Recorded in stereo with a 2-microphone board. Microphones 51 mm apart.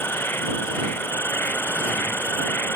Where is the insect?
45° left (ahead or behind).